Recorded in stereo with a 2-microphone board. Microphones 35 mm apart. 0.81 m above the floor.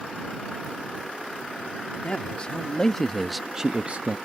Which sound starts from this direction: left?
A man speaking, at 2.0 s.